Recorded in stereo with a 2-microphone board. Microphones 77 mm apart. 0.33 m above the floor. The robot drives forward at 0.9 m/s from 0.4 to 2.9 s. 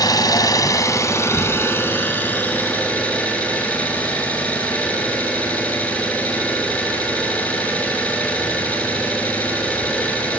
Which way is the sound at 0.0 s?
55° left (ahead or behind).